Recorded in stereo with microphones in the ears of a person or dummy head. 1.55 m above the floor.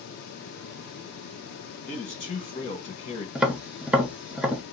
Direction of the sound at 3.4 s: 5° right (ahead or behind).